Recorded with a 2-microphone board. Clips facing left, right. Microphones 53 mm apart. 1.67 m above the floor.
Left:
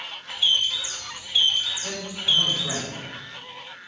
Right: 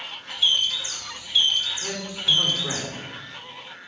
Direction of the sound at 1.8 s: 30° right (ahead or behind).